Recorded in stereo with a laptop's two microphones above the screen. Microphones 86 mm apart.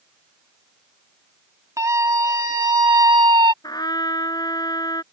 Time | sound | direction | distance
1.8 | a scream | 40° right (ahead or behind) | ?
3.6 | a trumpet | 55° left (ahead or behind) | ?